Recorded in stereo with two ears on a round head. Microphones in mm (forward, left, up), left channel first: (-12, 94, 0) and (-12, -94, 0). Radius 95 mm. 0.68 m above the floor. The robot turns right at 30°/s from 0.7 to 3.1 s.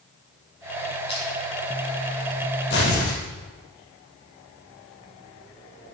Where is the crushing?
25° left (ahead or behind), 7.5 m; by 1.3 s 20° left (ahead or behind), 7.5 m.